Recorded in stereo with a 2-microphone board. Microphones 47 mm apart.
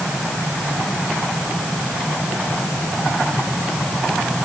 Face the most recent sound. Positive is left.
No sound to turn to.